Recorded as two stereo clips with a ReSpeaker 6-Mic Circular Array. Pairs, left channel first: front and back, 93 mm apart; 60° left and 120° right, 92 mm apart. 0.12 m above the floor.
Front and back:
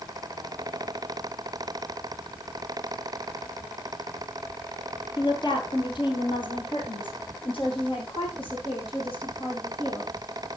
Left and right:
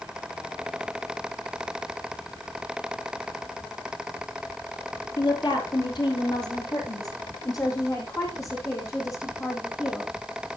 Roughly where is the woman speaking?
Ahead left.